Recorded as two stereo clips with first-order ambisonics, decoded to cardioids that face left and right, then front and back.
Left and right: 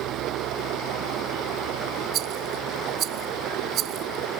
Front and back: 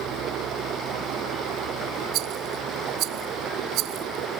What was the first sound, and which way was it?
Running water, 130° right.